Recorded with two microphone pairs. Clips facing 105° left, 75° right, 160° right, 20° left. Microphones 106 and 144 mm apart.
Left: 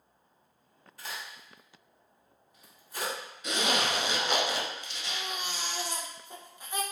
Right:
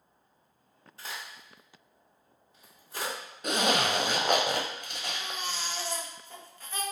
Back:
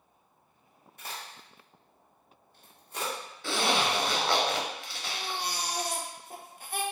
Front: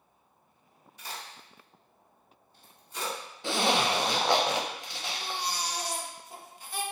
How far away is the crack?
About 1.7 m.